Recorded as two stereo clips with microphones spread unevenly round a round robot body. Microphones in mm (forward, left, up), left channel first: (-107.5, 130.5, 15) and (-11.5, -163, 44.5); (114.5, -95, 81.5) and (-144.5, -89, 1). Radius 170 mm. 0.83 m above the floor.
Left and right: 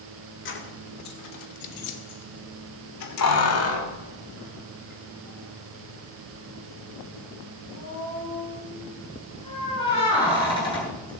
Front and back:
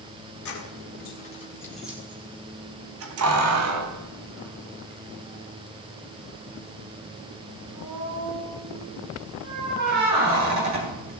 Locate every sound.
0.5 s keys jangling: 50° left, 2.5 m; by 11.1 s 175° right, 11 m